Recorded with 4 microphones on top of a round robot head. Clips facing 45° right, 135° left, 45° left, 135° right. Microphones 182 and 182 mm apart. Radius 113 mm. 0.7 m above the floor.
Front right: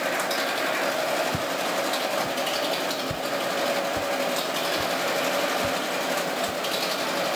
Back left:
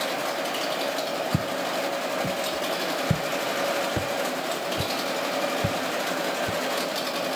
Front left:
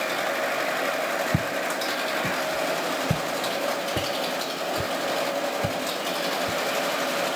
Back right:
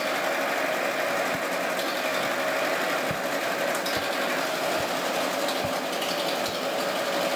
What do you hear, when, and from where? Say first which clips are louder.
1.3 s footsteps: even, front left 1 dB; 80° left; by 6.6 s 115° left